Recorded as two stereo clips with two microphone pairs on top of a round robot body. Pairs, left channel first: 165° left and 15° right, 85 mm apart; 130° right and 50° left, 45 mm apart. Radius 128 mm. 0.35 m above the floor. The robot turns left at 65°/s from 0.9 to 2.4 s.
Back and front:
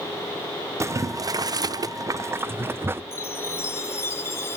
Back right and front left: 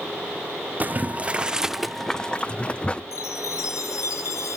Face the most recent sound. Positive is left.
turn(degrees=-130)